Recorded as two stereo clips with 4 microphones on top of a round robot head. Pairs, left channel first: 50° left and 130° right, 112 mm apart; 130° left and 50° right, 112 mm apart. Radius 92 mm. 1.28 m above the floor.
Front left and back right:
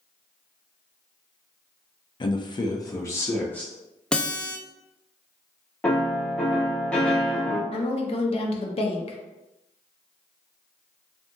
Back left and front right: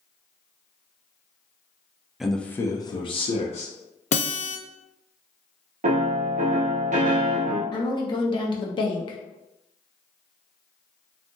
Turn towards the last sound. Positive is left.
turn(degrees=85)